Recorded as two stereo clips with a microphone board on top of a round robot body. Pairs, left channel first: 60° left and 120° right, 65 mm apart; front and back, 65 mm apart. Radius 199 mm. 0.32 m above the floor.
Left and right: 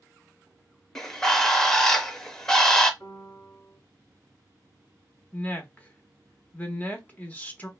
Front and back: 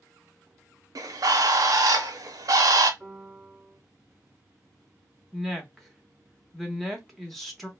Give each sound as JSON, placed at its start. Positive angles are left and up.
{"t": 0.9, "sound": "a bird", "azimuth_deg": 145, "distance_m": 0.5}
{"t": 3.0, "sound": "a piano", "azimuth_deg": 100, "distance_m": 1.4}
{"t": 5.3, "sound": "a woman speaking", "azimuth_deg": 90, "distance_m": 1.1}